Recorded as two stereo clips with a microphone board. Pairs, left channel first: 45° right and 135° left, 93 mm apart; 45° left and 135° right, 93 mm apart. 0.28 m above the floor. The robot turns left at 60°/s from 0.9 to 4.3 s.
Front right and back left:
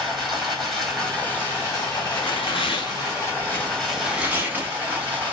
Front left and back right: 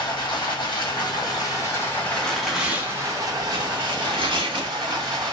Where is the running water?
50° left, 1.5 m; by 5.3 s 155° right, 1.5 m.